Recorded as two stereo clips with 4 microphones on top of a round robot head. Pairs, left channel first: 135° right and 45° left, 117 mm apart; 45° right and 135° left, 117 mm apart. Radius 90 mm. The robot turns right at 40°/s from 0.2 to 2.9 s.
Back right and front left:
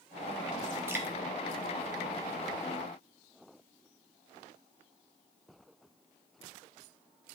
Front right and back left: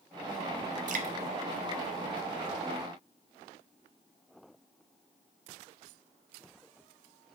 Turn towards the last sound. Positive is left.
turn(degrees=-165)